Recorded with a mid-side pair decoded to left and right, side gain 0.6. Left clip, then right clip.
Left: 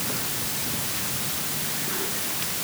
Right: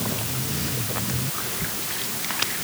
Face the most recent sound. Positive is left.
No sound to turn to.